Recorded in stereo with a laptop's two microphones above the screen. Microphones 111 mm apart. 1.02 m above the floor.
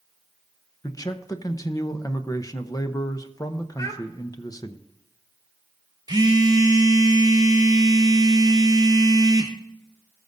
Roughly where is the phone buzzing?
Right.